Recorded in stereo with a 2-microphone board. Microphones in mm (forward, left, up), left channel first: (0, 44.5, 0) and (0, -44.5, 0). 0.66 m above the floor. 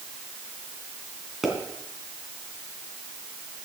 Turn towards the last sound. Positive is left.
turn(degrees=0)  # may be behind; listen again after turning